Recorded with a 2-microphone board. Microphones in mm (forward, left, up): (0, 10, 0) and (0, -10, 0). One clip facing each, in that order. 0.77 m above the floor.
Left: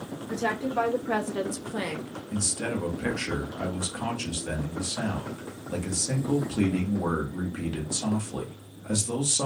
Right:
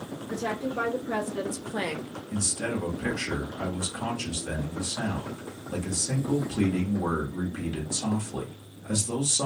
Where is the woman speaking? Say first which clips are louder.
Left 3 dB; 65° left (ahead or behind), 1.6 m; by 2.1 s 30° right (ahead or behind), 0.7 m.